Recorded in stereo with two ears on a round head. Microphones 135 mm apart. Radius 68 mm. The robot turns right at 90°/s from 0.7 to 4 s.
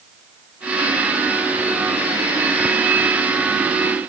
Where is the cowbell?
No cowbell in this recording.